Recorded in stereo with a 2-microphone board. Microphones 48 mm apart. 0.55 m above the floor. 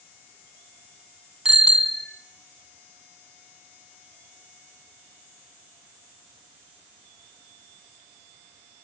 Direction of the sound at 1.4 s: 10° right (ahead or behind).